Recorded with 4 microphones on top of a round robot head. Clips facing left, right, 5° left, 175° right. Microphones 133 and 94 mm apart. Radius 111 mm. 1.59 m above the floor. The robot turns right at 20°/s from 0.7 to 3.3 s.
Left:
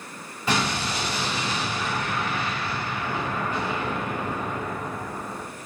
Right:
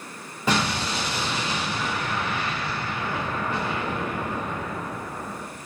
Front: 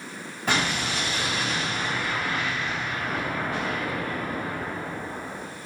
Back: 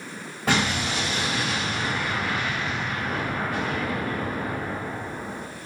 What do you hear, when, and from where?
0.5 s an explosion: 120° right, 1.5 m; by 5.4 s 65° right, 1.5 m